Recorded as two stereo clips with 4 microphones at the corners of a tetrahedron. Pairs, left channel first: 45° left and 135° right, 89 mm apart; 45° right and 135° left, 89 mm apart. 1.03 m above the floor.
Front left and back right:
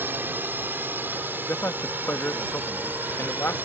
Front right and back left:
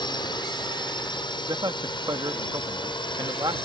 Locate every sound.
0.0 s a drone: 70° right; by 3.7 s 65° right
1.5 s a man speaking: 105° left